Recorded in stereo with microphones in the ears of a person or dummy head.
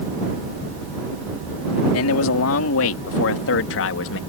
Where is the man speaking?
80° left; by 4.2 s 70° left (ahead or behind).